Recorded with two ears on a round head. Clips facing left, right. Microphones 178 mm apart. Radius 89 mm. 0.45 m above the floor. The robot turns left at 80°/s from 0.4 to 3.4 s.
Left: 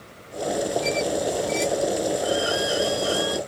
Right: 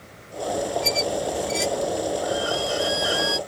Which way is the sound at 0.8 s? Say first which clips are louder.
Left 1 dB; 65° right (ahead or behind).